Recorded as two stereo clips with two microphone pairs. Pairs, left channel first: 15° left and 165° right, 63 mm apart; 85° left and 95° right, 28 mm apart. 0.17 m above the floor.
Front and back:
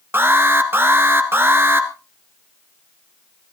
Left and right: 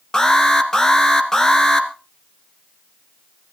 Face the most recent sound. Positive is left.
turn(degrees=150)